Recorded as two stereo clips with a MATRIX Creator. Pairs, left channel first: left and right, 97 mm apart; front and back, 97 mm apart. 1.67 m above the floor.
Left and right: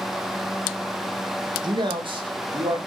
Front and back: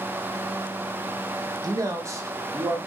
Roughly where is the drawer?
I don't hear a drawer.